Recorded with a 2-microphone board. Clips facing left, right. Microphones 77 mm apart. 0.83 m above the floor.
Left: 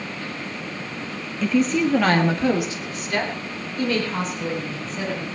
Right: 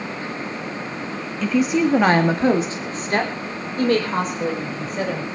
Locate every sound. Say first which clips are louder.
1.4 s a woman speaking: right 1 dB; 5° left (ahead or behind), 1.3 m; by 5.2 s 50° right (ahead or behind), 5.5 m